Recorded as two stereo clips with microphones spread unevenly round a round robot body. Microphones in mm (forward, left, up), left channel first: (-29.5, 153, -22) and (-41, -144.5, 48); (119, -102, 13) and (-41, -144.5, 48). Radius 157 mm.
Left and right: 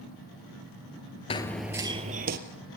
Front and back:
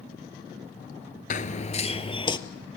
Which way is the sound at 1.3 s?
5° left.